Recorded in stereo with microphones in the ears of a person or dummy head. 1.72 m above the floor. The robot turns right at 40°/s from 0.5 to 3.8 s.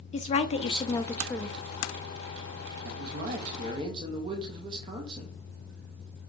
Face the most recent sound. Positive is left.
turn(degrees=-30)